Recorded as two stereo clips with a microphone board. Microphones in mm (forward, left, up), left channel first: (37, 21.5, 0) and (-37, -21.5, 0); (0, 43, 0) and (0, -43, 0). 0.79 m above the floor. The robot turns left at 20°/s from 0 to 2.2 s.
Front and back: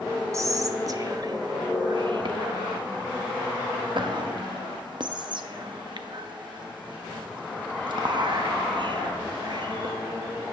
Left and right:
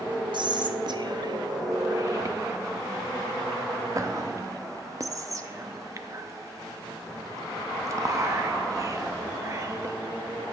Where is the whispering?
100° right, 0.7 m; by 9.9 s 135° right, 0.7 m.